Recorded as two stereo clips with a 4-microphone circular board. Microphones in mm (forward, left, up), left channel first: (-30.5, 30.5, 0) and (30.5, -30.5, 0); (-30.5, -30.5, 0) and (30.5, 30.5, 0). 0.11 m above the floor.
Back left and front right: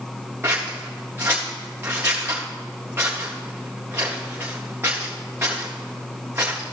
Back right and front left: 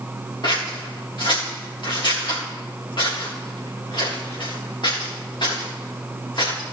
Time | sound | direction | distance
0.4 | scissors | 105° right | 3.5 m